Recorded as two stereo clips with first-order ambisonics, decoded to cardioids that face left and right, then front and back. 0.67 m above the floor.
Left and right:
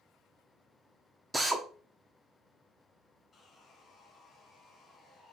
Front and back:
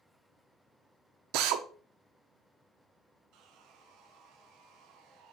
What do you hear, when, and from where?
1.3 s a drill: 175° right, 0.7 m
3.3 s sawing: 160° left, 1.2 m